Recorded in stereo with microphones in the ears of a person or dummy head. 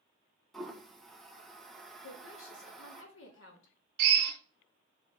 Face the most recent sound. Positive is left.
turn(degrees=-60)  # may be behind; listen again after turning